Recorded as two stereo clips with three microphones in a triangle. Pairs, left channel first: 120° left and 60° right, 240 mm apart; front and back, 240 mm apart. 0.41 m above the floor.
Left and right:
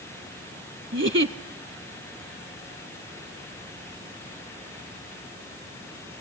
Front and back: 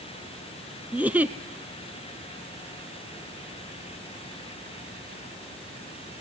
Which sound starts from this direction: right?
A giggle, at 0.9 s.